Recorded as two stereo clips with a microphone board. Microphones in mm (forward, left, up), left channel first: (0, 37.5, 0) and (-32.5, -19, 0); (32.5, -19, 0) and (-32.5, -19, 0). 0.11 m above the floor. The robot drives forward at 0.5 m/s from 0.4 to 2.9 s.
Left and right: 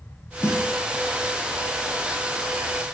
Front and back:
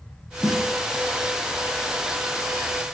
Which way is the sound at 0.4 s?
85° left.